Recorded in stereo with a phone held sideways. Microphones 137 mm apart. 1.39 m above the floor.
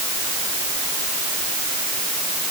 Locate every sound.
Only background noise.